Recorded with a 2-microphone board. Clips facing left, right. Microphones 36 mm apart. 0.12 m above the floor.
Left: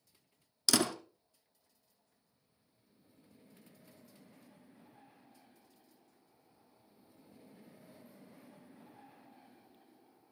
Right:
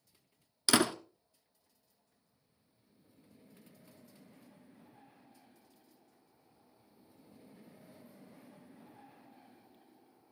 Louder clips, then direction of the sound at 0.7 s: Right 3 dB; 30° right (ahead or behind).